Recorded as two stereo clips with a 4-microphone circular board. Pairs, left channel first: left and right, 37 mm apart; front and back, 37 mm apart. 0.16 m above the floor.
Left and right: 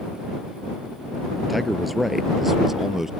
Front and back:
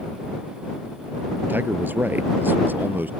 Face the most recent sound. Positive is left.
turn(degrees=-170)